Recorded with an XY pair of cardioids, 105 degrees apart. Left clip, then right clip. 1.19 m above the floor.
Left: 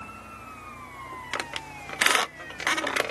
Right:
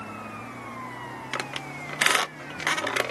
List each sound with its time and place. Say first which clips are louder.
1.3 s a squeak: right 1 dB; 5° left, 0.5 m